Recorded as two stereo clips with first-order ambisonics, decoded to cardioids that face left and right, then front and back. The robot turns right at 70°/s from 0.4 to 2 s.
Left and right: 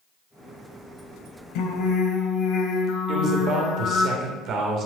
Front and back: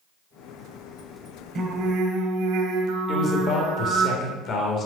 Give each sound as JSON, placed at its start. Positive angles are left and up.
{"t": 1.6, "sound": "singing", "azimuth_deg": 115, "distance_m": 1.2}
{"t": 3.1, "sound": "a man speaking", "azimuth_deg": -50, "distance_m": 2.0}